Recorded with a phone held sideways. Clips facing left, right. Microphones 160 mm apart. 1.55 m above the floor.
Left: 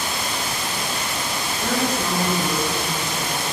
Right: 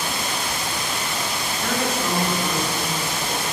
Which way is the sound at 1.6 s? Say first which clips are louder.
Left 1 dB; 15° left (ahead or behind).